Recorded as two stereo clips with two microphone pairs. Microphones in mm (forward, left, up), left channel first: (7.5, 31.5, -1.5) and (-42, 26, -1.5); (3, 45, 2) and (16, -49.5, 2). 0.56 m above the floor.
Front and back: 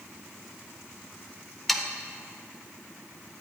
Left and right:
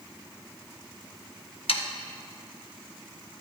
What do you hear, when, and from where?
1.7 s sawing: 95° left, 0.5 m